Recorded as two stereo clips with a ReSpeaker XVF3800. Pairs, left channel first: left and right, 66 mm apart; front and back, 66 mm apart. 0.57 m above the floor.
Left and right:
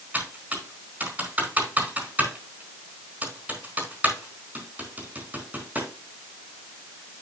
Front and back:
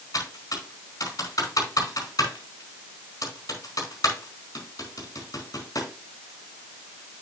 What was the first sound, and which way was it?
Typing on a keyboard, 25° right.